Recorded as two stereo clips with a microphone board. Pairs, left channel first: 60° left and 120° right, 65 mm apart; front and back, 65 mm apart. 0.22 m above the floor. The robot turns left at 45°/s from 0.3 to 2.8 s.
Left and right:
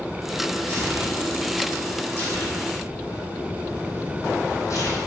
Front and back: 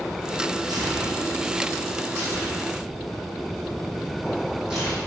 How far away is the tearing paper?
About 2.5 m.